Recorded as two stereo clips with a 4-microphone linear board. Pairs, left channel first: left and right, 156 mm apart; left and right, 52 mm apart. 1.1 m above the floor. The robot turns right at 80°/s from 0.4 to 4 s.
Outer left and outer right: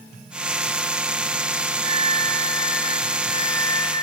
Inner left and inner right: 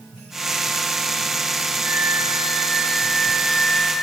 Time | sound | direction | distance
1.8 | a flute | 140° right | 2.5 m